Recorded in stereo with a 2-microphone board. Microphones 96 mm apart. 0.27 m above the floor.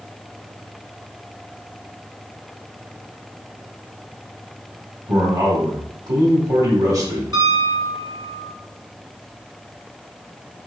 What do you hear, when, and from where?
5.1 s a man speaking: 40° right (ahead or behind), 1.6 m
7.3 s a piano: 45° right (ahead or behind), 2 m